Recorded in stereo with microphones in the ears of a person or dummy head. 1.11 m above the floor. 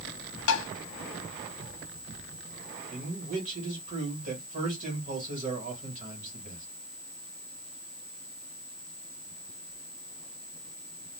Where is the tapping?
75° left (ahead or behind), 0.7 m.